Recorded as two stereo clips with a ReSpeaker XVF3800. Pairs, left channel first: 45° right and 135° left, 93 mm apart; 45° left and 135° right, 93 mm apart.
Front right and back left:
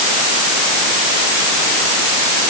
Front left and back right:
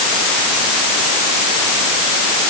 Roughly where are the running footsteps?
No running footsteps in this recording.